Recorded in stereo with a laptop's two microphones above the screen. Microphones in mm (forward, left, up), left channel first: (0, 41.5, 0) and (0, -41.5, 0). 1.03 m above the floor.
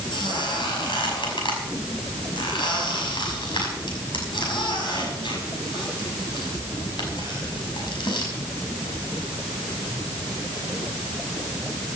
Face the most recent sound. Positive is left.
turn(degrees=80)